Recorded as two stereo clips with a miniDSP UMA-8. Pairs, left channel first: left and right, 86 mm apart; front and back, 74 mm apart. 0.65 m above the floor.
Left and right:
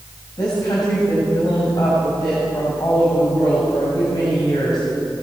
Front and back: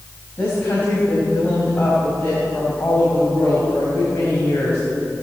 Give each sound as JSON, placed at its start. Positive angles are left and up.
{"t": 0.4, "sound": "a woman speaking", "azimuth_deg": 55, "distance_m": 3.5}